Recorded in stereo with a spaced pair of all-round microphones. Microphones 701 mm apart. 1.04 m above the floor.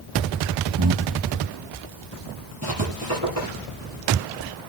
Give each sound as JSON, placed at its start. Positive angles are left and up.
{"t": 0.8, "sound": "breathing", "side_deg": -35, "distance_m": 0.9}
{"t": 2.6, "sound": "writing", "side_deg": -20, "distance_m": 9.0}